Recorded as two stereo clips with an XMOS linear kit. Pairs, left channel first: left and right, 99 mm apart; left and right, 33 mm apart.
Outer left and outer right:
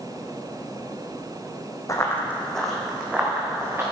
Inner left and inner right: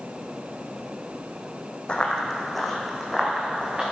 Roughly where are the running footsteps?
Left.